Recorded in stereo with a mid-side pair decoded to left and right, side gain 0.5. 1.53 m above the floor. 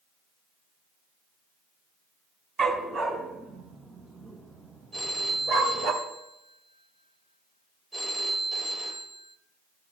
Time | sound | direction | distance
2.6 | a dog barking | 40° right | 3.5 m
4.9 | a phone ringing | 25° right | 3.5 m